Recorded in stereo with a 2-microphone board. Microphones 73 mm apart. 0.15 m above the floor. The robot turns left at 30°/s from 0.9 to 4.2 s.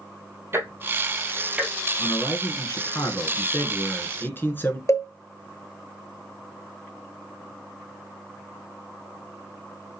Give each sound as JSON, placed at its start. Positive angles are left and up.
{"t": 0.5, "sound": "ticking", "side_deg": -35, "distance_m": 0.9}
{"t": 2.0, "sound": "a man speaking", "azimuth_deg": 110, "distance_m": 1.7}
{"t": 4.9, "sound": "a cowbell", "side_deg": 45, "distance_m": 0.9}